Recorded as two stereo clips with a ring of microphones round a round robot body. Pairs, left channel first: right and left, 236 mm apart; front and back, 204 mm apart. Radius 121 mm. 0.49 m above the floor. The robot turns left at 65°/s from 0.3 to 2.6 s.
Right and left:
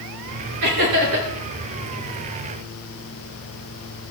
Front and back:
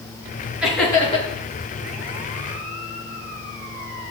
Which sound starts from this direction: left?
Laughter, at 0.6 s.